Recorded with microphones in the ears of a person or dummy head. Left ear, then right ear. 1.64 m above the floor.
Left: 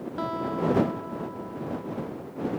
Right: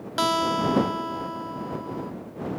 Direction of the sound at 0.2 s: 80° right.